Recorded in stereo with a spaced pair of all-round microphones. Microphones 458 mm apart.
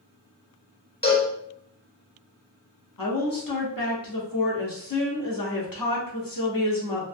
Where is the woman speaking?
50° left (ahead or behind), 0.8 m.